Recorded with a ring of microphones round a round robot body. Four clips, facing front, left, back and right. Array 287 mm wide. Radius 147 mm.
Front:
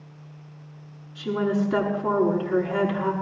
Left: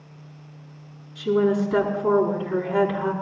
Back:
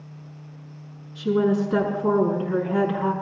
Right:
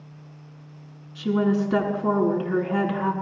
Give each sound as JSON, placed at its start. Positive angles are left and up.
{"t": 1.1, "sound": "a woman speaking", "azimuth_deg": -85, "distance_m": 7.5}